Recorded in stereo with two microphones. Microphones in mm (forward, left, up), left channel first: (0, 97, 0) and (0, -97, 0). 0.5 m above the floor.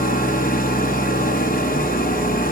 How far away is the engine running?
About 1.1 m.